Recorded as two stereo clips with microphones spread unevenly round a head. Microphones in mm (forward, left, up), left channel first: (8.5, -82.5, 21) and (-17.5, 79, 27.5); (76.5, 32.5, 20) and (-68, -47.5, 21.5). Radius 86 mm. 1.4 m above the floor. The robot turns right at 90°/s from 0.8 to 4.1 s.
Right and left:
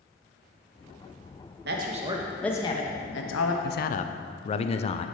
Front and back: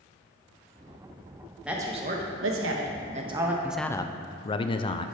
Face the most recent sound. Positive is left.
turn(degrees=-30)